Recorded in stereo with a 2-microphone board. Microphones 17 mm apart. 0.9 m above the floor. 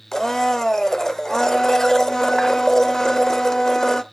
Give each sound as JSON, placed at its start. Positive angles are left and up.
{"t": 0.1, "sound": "a blender", "side_deg": 25, "distance_m": 0.8}